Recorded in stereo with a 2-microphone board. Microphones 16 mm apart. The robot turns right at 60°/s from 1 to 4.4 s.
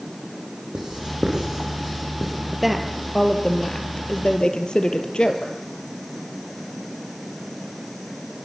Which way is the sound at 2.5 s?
15° right.